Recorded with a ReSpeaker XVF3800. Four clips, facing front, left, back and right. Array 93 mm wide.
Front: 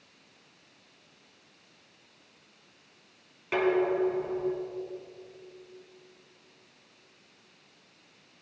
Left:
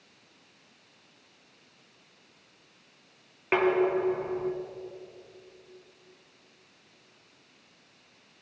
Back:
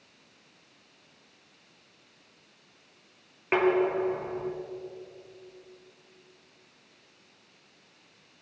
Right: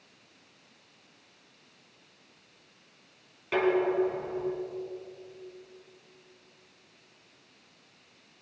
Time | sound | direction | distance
3.5 | dishes clattering | 130° left | 1.5 m